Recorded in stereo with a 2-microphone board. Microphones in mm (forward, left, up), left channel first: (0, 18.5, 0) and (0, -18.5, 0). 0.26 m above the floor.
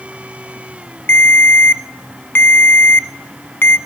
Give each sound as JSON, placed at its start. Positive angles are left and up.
{"t": 1.1, "sound": "a ringtone", "side_deg": 65, "distance_m": 0.8}